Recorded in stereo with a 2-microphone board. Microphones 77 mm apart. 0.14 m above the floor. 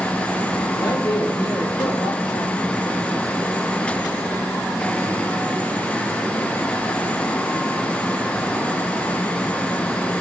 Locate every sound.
0.7 s a man speaking: 60° left (ahead or behind), 4.5 m; by 2.5 s 55° left (ahead or behind), 3.5 m